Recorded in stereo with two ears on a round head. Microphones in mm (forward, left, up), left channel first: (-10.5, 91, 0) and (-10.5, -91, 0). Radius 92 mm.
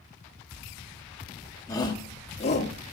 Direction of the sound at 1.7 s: 20° left (ahead or behind).